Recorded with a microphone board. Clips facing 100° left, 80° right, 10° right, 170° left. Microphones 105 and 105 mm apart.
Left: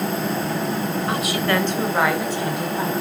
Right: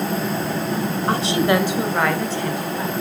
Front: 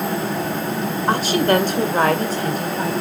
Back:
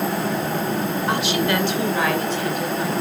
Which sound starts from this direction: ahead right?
A woman speaking, at 1.1 s.